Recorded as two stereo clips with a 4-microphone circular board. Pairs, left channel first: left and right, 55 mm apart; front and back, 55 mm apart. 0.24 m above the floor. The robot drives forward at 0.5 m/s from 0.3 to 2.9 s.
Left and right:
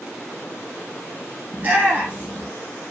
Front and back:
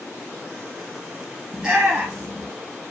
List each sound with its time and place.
1.5 s a shout: 115° right, 2.0 m; by 2.5 s 130° right, 2 m